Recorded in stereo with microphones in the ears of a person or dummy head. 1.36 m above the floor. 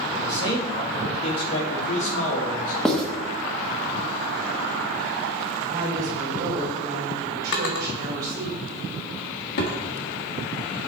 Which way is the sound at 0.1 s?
30° left (ahead or behind).